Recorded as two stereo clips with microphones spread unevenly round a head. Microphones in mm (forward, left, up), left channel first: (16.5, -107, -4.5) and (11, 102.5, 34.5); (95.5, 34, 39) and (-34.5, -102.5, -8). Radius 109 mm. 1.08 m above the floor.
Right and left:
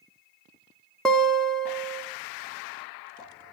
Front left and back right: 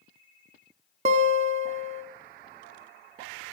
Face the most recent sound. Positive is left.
turn(degrees=170)